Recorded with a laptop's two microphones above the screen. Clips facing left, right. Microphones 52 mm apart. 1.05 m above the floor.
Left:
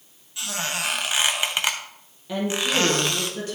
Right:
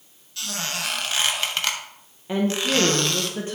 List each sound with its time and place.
0.4 s a squeak: 15° left (ahead or behind), 0.6 m
2.3 s a woman speaking: 30° right (ahead or behind), 1.1 m